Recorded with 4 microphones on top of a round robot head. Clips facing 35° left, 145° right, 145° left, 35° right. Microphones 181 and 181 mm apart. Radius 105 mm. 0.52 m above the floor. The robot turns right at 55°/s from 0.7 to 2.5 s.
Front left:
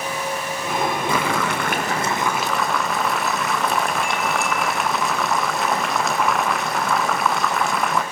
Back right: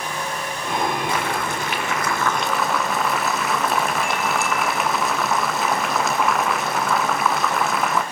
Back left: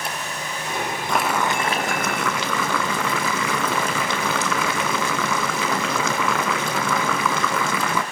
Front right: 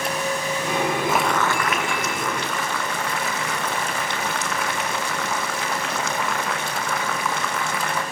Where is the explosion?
I don't hear an explosion.